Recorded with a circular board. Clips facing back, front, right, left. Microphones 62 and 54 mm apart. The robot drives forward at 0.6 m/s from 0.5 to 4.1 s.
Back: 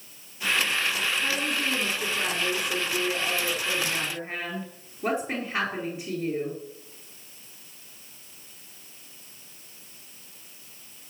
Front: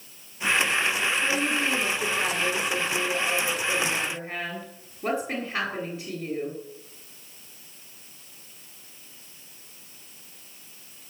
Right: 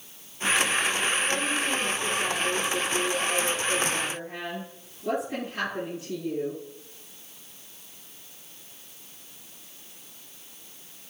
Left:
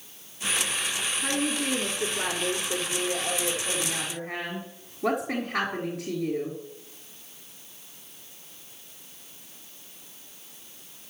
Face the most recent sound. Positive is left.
turn(degrees=110)